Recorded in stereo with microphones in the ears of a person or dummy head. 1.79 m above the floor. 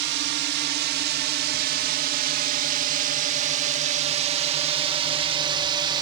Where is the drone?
60° right (ahead or behind); by 6.0 s 25° right (ahead or behind).